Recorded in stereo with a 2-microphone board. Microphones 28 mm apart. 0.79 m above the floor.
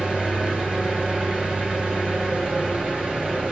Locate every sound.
0.0 s an engine running: 40° right (ahead or behind), 1.9 m